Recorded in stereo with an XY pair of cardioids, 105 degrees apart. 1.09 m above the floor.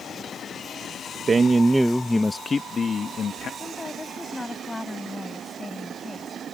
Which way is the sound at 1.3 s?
35° right.